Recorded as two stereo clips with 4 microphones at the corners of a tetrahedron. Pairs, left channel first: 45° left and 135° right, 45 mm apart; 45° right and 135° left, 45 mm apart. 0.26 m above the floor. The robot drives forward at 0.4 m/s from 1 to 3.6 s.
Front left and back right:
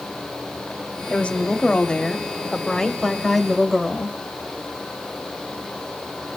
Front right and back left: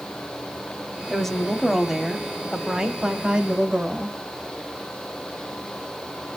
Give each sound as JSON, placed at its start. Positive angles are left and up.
{"t": 1.1, "sound": "a woman speaking", "azimuth_deg": 25, "distance_m": 1.3}